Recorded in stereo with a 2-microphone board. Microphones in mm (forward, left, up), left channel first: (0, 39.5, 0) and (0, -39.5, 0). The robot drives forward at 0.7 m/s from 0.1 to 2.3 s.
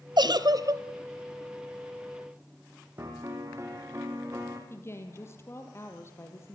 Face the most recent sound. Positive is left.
turn(degrees=30)  # may be behind; listen again after turning